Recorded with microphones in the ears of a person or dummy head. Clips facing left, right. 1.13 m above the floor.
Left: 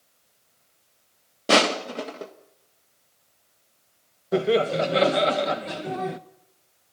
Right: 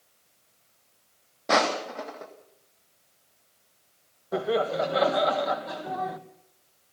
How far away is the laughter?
About 1.2 m.